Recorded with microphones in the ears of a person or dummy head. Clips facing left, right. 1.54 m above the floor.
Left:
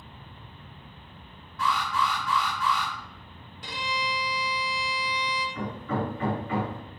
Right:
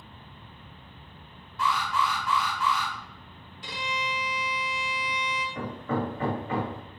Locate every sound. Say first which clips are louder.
1.6 s an alarm: even; 20° right (ahead or behind), 1.4 m
3.6 s a violin: left 1 dB; 40° left (ahead or behind), 1.1 m
5.5 s hammering: right 2 dB; 30° right (ahead or behind), 1.4 m